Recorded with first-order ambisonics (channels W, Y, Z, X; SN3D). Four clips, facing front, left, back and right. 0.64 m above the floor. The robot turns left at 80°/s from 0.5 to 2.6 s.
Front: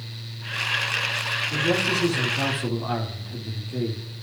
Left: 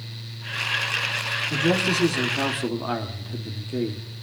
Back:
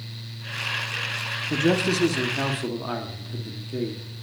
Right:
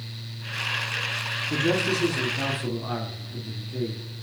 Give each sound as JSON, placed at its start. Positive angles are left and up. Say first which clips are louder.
{"t": 1.5, "sound": "a man speaking", "louder": "left 1 dB, back 2 dB", "azimuth_deg": -170, "distance_m": 1.4}